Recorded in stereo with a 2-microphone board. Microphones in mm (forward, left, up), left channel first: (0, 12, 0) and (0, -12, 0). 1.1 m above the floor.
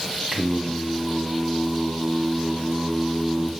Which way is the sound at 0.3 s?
30° right (ahead or behind).